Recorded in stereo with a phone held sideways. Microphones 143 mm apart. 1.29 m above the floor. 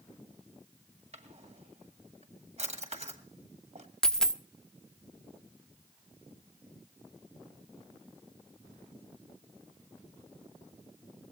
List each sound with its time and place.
1.1 s a drawer: 55° right (ahead or behind), 1.9 m
4.0 s a dropped coin: 5° left (ahead or behind), 0.6 m